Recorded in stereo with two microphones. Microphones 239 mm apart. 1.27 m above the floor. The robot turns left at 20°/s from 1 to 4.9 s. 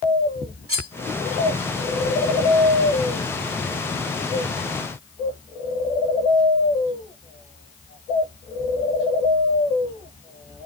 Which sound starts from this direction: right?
Cutlery clinking, at 0.7 s.